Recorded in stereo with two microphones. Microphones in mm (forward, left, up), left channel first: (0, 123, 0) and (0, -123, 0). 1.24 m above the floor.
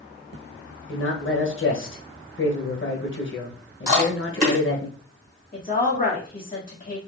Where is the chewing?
35° right (ahead or behind), 1.5 m.